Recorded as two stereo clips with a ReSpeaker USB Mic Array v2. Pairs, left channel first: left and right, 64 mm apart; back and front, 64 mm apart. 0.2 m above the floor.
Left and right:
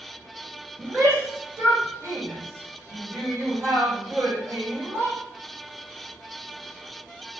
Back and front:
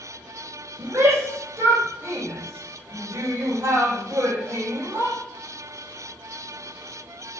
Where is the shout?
45° right, 9.5 m.